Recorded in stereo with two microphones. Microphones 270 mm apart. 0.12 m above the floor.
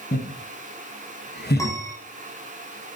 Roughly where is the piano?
Centre.